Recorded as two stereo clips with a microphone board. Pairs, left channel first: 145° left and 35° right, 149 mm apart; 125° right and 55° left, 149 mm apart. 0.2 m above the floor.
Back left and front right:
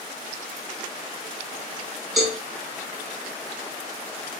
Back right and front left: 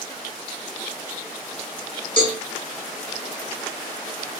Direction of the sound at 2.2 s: 125° right.